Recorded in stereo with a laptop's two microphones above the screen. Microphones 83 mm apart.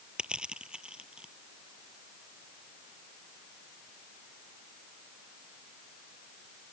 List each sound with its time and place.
0.2 s crushing: 10° right (ahead or behind)